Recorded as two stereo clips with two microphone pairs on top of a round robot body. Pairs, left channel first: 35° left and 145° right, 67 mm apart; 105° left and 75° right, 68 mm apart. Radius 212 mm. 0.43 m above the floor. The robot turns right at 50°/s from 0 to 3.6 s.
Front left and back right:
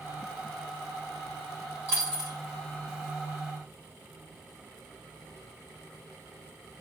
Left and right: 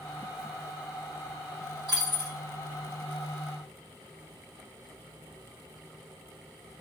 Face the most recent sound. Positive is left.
turn(degrees=-5)